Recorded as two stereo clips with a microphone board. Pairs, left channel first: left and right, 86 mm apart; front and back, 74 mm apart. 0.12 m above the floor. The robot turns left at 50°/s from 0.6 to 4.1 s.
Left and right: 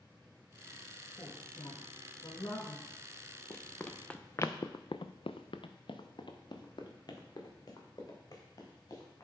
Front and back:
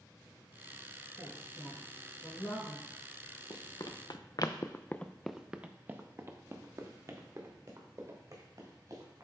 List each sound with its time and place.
1.2 s a woman speaking: 125° left, 3 m; by 2.9 s 40° left, 3 m
3.5 s running footsteps: 30° left, 1.0 m; by 9.2 s 140° left, 3 m